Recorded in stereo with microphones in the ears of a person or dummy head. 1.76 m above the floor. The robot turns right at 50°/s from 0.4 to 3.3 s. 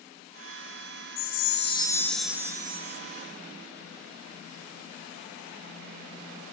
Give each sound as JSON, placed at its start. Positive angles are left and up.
{"t": 1.2, "sound": "a chime", "azimuth_deg": 130, "distance_m": 1.1}